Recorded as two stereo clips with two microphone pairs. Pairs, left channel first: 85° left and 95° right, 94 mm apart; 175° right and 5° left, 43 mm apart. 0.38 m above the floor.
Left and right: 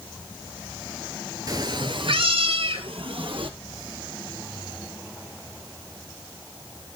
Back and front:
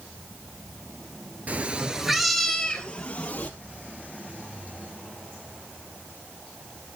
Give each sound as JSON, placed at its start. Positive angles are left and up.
{"t": 1.5, "sound": "a cat meowing", "azimuth_deg": -50, "distance_m": 1.0}